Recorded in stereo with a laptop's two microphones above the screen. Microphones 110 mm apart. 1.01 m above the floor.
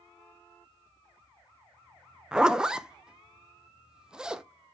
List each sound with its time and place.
2.3 s a zipper: 5° right (ahead or behind), 0.6 m